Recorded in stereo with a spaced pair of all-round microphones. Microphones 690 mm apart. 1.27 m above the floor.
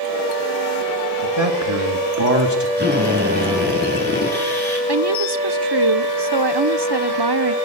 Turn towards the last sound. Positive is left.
turn(degrees=-35)  # may be behind; listen again after turning